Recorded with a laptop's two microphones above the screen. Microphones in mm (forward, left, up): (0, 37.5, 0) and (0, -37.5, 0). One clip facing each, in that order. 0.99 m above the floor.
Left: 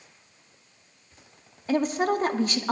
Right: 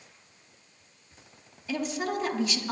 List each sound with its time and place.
1.7 s a woman speaking: 45° left (ahead or behind), 1.2 m